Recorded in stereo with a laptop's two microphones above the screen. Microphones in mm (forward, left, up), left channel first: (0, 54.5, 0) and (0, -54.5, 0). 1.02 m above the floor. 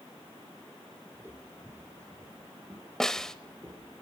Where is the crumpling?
No crumpling in this recording.